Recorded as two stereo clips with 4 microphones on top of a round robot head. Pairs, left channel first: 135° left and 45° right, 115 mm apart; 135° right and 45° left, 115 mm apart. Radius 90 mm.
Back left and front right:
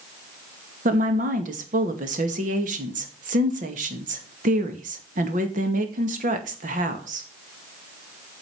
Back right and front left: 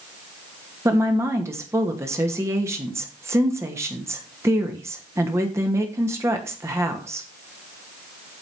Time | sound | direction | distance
0.8 | a woman speaking | 25° right | 2 m